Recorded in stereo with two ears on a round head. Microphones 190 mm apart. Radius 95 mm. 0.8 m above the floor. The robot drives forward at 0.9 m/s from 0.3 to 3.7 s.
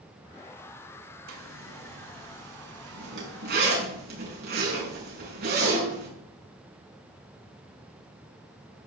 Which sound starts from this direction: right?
A zipper, at 1.3 s.